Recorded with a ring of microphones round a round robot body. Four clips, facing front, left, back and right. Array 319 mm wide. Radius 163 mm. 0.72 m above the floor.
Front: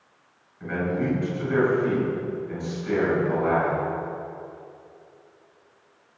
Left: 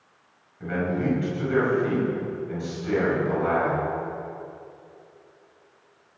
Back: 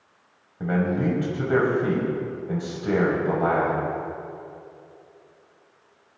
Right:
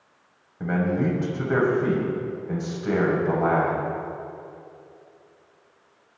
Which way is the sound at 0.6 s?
145° right.